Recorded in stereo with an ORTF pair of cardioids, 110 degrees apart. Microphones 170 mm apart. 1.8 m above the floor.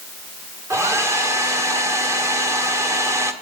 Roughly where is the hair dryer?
Ahead.